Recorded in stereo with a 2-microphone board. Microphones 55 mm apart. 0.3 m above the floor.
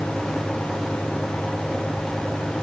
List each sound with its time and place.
Only background noise.